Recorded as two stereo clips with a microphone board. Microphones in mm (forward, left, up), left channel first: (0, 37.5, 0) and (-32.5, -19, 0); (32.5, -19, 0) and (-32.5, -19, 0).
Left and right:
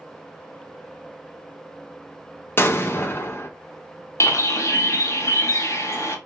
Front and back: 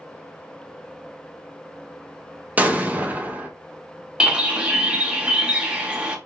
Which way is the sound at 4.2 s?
105° left.